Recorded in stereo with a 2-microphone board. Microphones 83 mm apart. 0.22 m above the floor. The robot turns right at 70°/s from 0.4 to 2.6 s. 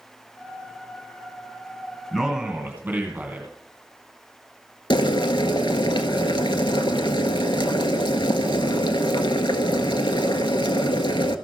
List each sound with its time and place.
2.1 s a man speaking: 175° left, 2 m; by 3.5 s 155° right, 2 m
4.9 s boiling: 80° left, 0.9 m